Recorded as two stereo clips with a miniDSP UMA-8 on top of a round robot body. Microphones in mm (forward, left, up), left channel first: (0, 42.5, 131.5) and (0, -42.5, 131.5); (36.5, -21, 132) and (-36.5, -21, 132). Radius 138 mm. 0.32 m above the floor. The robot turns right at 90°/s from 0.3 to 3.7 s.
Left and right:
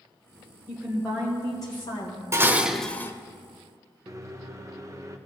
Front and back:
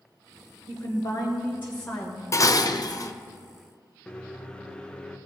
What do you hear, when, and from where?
0.7 s a woman speaking: 30° right, 2 m; by 2.2 s 110° left, 2 m
2.3 s dishes clattering: 40° right, 0.9 m; by 3.1 s 35° left, 0.9 m
4.1 s a microwave: 70° right, 1.0 m